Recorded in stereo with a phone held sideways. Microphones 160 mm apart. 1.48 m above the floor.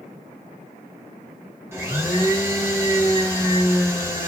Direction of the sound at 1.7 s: 15° right (ahead or behind).